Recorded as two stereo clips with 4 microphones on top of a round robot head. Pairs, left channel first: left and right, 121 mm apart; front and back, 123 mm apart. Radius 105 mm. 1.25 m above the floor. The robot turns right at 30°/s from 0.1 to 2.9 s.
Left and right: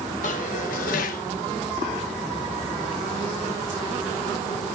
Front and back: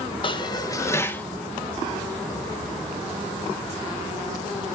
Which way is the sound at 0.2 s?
45° left.